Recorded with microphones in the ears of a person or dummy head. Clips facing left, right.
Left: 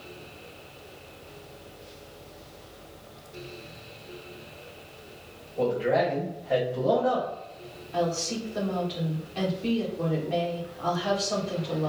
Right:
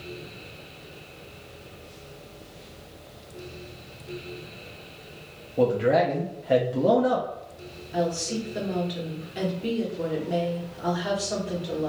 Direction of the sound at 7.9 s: 15° right (ahead or behind).